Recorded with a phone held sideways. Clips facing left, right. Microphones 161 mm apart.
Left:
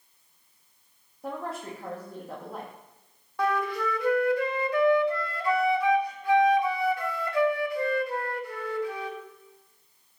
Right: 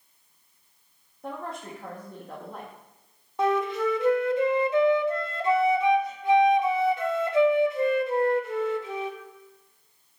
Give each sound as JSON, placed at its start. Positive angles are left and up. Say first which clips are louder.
{"t": 1.2, "sound": "a woman speaking", "louder": "left 1 dB", "side_deg": 5, "distance_m": 1.7}
{"t": 3.4, "sound": "a flute", "louder": "right 3 dB", "side_deg": -20, "distance_m": 0.8}